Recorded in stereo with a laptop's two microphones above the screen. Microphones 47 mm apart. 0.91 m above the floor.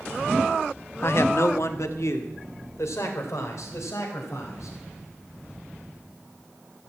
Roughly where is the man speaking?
Left.